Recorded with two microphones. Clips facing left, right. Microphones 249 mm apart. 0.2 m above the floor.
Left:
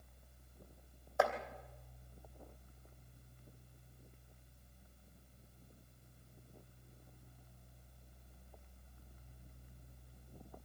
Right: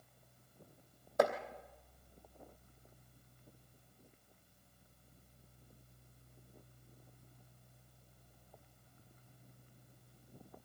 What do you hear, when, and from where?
1.2 s chopping: 45° right (ahead or behind), 2.5 m